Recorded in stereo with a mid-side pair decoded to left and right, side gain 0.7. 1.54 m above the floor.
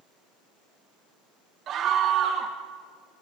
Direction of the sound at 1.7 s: 45° right.